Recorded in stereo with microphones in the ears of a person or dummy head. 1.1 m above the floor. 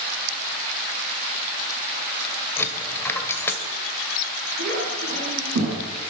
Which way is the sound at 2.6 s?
10° left (ahead or behind).